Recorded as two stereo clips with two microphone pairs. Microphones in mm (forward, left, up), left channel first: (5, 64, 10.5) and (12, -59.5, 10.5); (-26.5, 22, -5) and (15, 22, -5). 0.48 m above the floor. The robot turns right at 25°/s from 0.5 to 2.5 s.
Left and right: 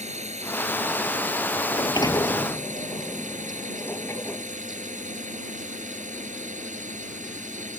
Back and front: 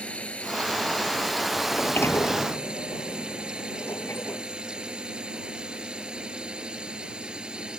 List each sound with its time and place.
0.0 s a drone: 120° right; by 7.8 s 70° right
1.7 s a sliding door: 145° left; by 4.5 s 165° left